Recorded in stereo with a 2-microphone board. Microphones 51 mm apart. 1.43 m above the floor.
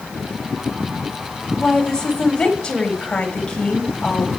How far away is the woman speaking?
About 3.5 m.